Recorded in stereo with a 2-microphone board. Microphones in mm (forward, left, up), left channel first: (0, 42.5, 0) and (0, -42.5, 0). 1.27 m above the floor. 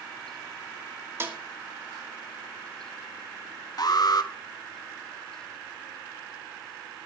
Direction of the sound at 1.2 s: 30° right (ahead or behind).